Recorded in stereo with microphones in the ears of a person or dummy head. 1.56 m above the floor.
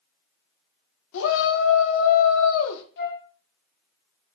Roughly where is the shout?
Left.